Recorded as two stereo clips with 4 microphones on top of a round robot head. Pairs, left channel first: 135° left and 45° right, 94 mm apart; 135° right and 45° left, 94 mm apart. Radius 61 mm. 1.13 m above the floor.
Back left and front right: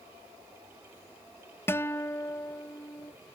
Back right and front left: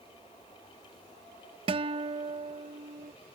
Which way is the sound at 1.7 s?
70° left.